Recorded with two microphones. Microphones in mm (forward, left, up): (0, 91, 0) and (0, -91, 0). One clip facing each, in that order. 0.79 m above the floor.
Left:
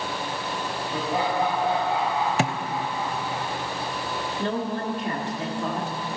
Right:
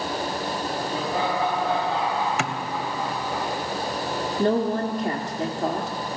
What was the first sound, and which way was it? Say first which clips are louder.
Laughter: left 2 dB; 20° left (ahead or behind).